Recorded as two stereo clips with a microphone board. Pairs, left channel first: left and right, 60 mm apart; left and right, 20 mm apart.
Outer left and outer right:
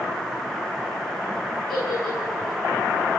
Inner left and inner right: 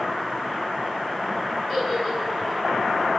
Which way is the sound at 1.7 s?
5° left (ahead or behind).